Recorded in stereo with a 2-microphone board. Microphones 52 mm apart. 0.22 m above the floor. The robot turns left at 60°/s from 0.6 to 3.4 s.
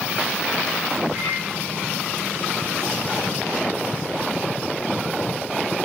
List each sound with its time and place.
1.1 s a microwave: 60° right (ahead or behind), 5 m; by 1.4 s 45° right (ahead or behind), 5 m